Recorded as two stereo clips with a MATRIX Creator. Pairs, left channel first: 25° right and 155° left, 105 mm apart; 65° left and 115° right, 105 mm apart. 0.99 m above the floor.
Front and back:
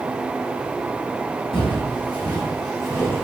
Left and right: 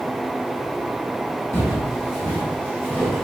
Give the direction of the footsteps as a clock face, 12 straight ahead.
12 o'clock.